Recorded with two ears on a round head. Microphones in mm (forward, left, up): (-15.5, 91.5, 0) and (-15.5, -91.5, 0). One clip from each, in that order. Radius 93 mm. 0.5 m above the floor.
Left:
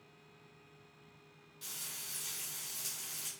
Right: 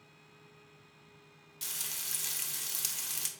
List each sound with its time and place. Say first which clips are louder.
1.6 s frying: right 5 dB; 50° right (ahead or behind), 0.7 m